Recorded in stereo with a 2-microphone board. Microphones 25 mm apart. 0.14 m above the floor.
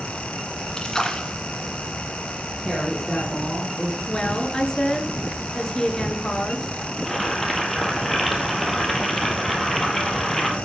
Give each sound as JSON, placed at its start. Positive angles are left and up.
{"t": 0.8, "sound": "a splash", "side_deg": 25, "distance_m": 1.7}
{"t": 2.6, "sound": "a woman speaking", "side_deg": 0, "distance_m": 3.5}
{"t": 4.1, "sound": "a woman speaking", "side_deg": 35, "distance_m": 1.7}
{"t": 7.0, "sound": "boiling", "side_deg": 10, "distance_m": 2.0}